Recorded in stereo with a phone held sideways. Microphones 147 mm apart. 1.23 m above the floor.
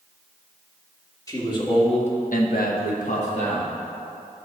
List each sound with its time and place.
1.3 s a man speaking: 25° left (ahead or behind), 2 m; by 3.7 s 40° left (ahead or behind), 2 m